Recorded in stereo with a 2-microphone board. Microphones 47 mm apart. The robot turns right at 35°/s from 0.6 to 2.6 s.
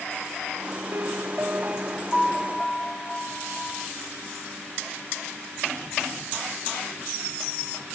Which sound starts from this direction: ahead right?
A piano, at 0.9 s.